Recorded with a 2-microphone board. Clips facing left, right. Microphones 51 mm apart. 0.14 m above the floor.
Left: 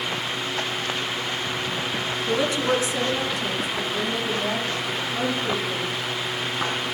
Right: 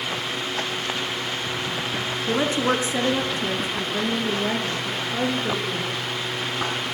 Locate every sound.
2.3 s a woman speaking: 25° right (ahead or behind), 1.3 m